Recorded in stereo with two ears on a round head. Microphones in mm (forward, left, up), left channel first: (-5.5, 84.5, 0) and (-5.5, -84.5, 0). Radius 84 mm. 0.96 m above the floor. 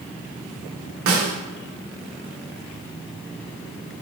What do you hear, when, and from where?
1.1 s a snare drum: 85° right, 0.7 m